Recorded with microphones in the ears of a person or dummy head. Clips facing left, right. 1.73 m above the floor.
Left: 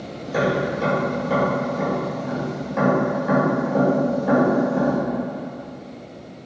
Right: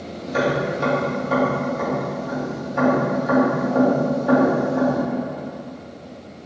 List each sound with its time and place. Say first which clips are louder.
0.2 s tapping: even; 70° left (ahead or behind), 1.5 m